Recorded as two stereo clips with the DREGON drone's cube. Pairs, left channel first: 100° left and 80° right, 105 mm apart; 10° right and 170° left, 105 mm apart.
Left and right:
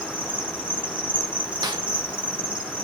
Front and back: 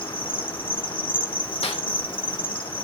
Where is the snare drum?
30° right, 2.5 m.